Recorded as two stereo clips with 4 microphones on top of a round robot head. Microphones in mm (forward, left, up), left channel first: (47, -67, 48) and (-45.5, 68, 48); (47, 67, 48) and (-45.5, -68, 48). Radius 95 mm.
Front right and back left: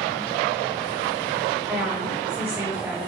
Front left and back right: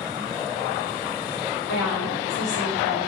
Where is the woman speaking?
45° left, 6 m.